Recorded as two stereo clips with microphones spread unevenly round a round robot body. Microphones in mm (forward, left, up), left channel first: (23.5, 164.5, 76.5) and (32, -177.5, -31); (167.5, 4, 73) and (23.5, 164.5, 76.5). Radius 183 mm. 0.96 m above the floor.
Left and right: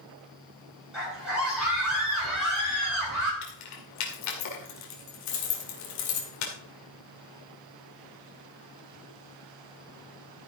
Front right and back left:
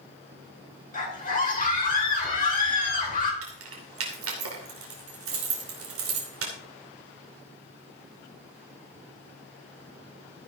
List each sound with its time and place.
0.9 s a scream: straight ahead, 8.5 m
3.4 s keys jangling: 135° left, 2.5 m